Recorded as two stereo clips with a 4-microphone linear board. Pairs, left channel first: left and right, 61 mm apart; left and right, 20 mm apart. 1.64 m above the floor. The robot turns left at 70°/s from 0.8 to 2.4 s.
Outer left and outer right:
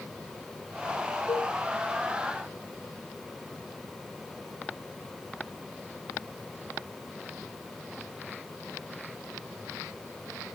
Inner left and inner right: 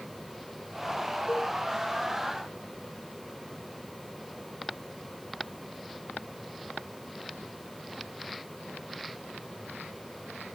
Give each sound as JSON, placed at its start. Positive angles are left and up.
{"t": 1.3, "sound": "a cowbell", "side_deg": 60, "distance_m": 2.5}